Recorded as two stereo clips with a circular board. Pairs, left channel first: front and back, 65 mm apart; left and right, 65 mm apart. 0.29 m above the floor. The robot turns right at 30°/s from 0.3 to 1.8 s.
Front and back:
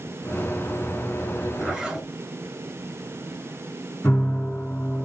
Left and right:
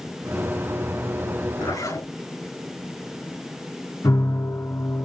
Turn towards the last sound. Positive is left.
turn(degrees=60)